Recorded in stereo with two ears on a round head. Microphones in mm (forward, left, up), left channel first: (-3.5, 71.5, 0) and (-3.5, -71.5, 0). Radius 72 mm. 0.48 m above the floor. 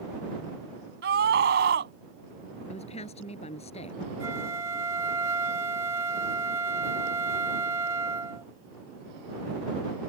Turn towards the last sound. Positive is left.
turn(degrees=-20)  # may be behind; listen again after turning